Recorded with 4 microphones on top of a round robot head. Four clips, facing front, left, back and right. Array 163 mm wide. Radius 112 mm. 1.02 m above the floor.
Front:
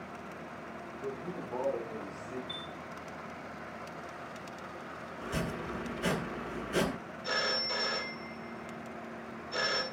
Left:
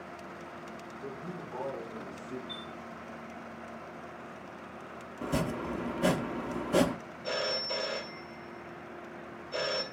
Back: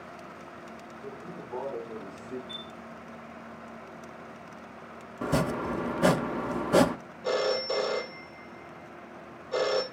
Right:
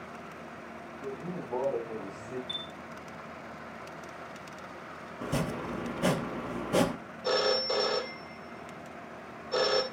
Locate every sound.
1.0 s a man speaking: 80° right, 6 m; by 2.4 s 85° right, 4.5 m
2.5 s a chime: 95° right, 7 m
5.2 s chopping: straight behind, 0.9 m
7.2 s a phone ringing: 135° right, 2 m